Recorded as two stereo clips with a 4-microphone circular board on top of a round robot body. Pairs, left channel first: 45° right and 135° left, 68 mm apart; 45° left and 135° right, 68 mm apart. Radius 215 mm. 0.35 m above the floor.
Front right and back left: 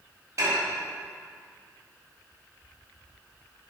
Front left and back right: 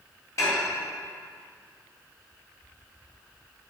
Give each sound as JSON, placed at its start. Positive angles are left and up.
{"t": 0.4, "sound": "dishes clattering", "azimuth_deg": 90, "distance_m": 2.5}